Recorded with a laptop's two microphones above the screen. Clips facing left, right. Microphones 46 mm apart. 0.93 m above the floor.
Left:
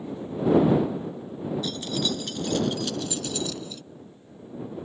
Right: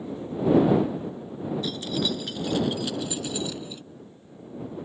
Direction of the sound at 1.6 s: 5° right (ahead or behind).